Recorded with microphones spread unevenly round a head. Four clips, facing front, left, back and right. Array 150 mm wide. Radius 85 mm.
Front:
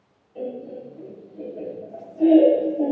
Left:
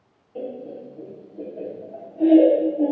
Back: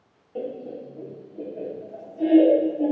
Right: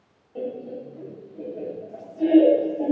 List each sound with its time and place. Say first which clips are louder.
0.3 s laughter: right 1 dB, even; 175° left, 1.2 m; by 2.9 s 35° left, 1.1 m